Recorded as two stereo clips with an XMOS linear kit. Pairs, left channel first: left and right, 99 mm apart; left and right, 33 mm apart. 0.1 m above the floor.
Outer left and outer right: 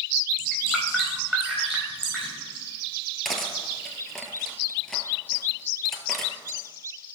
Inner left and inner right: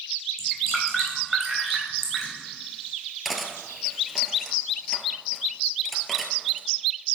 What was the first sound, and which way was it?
Dripping, 5° right (ahead or behind).